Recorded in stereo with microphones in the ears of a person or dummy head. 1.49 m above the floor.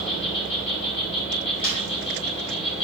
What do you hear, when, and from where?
0.0 s an insect: 35° left (ahead or behind), 2.5 m
1.6 s a snare drum: 80° left, 4 m